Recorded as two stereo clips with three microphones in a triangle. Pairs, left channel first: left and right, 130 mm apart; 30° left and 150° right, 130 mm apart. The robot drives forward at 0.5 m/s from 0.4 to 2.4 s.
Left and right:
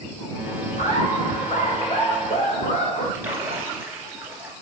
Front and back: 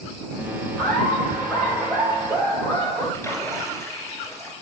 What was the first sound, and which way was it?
Laughter, 115° left.